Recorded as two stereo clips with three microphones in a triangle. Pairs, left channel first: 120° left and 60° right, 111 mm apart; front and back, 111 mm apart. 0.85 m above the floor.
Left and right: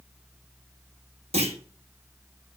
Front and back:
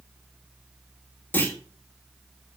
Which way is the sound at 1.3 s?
70° right.